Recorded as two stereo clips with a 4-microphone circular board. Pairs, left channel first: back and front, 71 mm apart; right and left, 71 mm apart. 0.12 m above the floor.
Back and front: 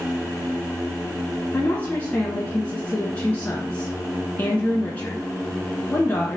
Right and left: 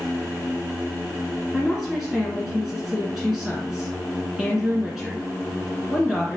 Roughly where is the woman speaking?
Behind.